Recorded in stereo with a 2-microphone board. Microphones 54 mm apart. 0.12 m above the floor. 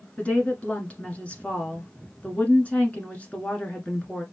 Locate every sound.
0.2 s a woman speaking: 25° left (ahead or behind), 1.2 m